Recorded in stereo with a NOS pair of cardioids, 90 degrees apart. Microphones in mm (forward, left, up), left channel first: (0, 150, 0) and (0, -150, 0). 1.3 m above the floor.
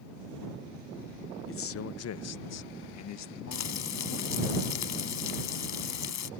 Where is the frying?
70° left.